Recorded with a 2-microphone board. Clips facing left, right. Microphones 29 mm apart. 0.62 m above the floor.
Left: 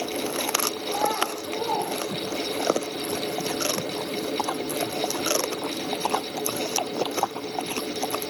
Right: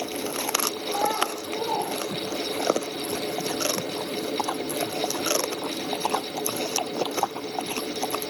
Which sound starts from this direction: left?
A child speaking, at 0.9 s.